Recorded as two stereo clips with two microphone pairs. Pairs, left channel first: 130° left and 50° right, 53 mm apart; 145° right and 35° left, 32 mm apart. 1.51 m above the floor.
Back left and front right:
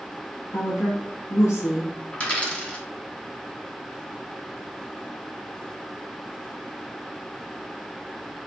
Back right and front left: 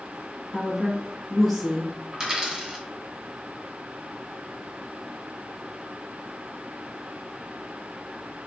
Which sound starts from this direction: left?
A dropped coin, at 2.1 s.